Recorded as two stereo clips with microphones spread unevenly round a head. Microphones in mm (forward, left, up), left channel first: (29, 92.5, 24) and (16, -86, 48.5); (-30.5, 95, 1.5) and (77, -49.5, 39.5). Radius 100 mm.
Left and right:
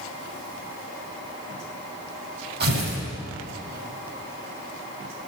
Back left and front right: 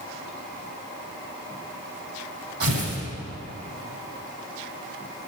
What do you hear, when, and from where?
2.6 s tearing paper: 65° right, 7.5 m